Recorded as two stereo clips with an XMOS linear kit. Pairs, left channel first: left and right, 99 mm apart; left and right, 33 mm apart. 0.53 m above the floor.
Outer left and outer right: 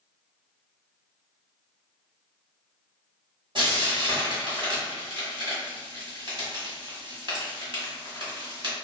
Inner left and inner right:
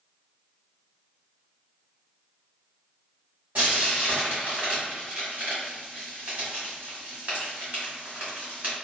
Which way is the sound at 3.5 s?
55° right (ahead or behind).